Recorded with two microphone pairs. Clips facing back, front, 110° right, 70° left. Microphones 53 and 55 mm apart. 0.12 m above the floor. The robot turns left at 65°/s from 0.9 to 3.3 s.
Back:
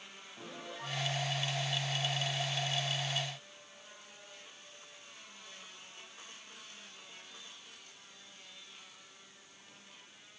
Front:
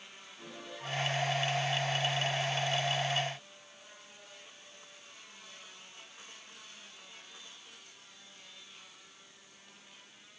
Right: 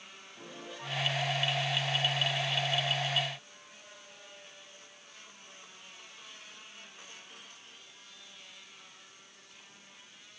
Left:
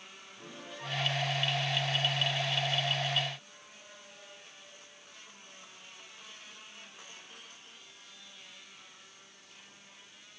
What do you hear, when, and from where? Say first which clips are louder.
0.4 s a piano: back 1 dB, even; 165° right, 5.5 m; by 1.1 s 175° right, 5.5 m